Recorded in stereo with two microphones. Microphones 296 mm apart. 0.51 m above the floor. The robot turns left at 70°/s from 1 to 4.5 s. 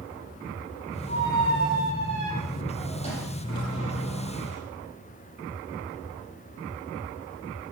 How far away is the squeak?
About 8 m.